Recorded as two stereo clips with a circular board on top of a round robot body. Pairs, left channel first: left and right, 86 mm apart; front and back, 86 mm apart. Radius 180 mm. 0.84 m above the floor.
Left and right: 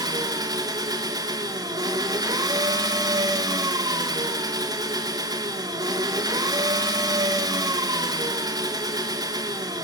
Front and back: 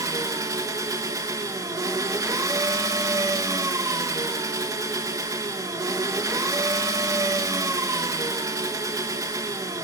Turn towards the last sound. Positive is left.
turn(degrees=-130)